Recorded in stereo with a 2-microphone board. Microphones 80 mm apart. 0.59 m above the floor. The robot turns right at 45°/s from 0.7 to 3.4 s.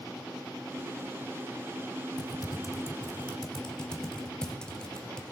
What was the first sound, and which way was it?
Typing on a keyboard, 60° left (ahead or behind).